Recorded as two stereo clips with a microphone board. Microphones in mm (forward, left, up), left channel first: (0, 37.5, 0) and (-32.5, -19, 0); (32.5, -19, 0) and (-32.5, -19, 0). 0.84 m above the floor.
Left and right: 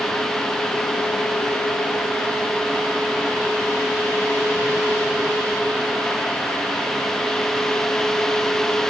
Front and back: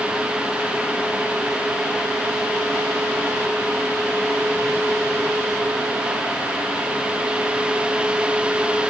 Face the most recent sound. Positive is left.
No sound to turn to.